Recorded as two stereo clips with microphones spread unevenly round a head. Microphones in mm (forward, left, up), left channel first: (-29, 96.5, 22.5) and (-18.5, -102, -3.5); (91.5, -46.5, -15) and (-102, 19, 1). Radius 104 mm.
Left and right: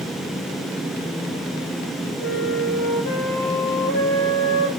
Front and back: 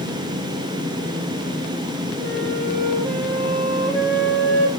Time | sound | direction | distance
2.2 | a flute | 70° left | 7.5 m